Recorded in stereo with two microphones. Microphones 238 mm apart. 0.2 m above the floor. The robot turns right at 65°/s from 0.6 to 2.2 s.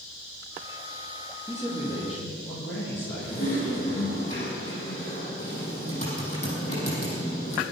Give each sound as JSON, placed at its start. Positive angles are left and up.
{"t": 1.5, "sound": "a man speaking", "azimuth_deg": 20, "distance_m": 7.0}
{"t": 3.2, "sound": "typing on a keyboard", "side_deg": 40, "distance_m": 6.0}